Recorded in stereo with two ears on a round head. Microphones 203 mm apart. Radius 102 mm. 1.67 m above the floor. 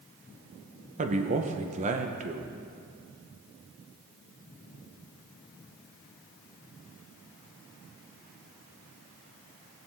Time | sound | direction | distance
1.0 | a man speaking | 35° right (ahead or behind) | 1.0 m